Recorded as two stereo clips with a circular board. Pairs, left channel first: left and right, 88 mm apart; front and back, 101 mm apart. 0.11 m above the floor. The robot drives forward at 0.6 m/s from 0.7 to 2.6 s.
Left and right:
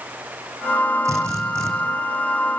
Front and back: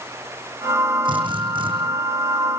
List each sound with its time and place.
1.1 s a drill: 145° right, 8 m; by 1.7 s 150° right, 8 m